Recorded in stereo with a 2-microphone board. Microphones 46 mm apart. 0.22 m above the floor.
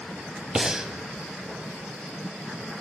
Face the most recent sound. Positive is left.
turn(degrees=-10)  # may be behind; listen again after turning